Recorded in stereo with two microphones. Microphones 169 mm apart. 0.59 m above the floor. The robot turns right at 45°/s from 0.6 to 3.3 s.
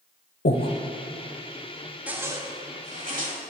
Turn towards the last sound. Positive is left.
turn(degrees=-115)